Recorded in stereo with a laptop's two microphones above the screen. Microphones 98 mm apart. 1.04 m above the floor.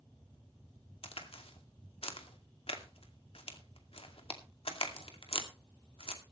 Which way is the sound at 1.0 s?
80° left.